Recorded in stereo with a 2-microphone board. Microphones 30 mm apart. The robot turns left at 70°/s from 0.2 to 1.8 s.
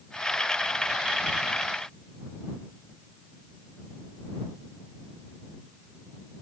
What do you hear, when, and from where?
Only background noise.